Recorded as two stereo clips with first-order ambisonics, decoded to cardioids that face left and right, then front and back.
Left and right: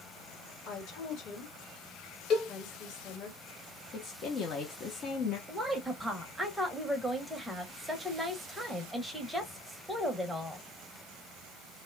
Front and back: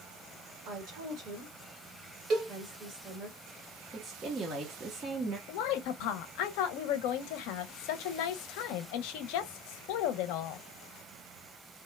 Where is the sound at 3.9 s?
125° left, 0.7 m.